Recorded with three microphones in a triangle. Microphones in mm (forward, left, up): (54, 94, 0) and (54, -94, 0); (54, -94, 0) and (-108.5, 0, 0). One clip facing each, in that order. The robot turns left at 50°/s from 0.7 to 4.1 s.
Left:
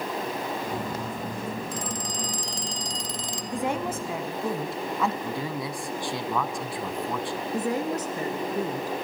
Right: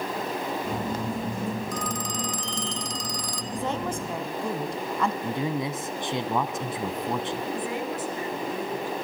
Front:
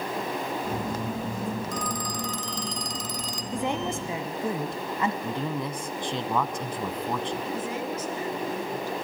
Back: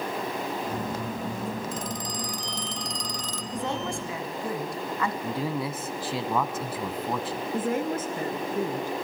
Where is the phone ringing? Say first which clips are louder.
Right 2 dB, front 1 dB; 120° left, 1.2 m; by 3.4 s 35° left, 1.2 m.